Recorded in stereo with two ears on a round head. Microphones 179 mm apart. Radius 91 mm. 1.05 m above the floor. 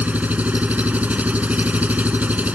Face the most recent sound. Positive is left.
turn(degrees=-10)  # may be behind; listen again after turning